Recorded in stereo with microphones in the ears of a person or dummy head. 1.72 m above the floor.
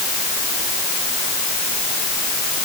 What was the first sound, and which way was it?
Only background noise.